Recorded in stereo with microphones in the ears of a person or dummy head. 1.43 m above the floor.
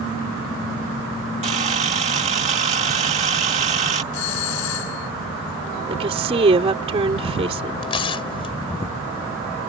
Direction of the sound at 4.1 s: 75° left (ahead or behind).